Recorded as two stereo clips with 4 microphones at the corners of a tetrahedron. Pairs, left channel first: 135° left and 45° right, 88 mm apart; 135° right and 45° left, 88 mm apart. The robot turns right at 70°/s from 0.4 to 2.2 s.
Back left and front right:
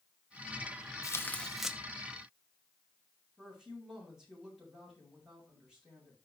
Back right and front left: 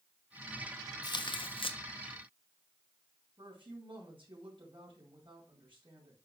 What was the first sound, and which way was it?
Tearing paper, 175° right.